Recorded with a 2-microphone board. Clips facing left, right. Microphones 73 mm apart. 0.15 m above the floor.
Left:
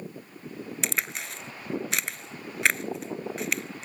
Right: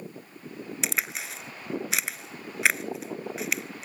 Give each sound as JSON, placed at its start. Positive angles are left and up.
{"t": 0.8, "sound": "a crack", "side_deg": -5}